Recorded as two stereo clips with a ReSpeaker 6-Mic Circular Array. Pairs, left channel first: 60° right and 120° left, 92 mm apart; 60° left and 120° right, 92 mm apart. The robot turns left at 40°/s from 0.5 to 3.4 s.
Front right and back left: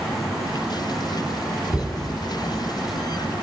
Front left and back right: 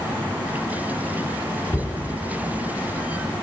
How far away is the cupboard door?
About 1.6 m.